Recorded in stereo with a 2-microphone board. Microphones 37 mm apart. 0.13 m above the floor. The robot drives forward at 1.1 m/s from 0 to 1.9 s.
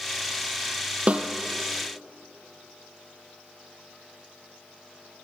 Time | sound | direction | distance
1.1 | a snare drum | 35° right (ahead or behind) | 1.6 m